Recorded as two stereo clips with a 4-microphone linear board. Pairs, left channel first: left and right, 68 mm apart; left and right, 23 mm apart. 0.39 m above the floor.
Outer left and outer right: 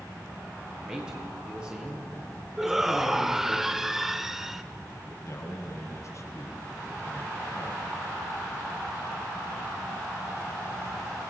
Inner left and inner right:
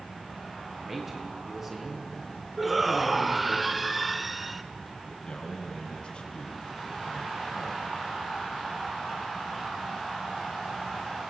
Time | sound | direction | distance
0.8 | a man speaking | 15° right (ahead or behind) | 7.5 m
2.6 | a shout | 5° right (ahead or behind) | 1.3 m
5.1 | a man speaking | 45° left (ahead or behind) | 4.5 m